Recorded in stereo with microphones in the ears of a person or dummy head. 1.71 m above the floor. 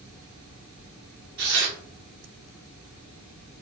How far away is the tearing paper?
About 0.9 m.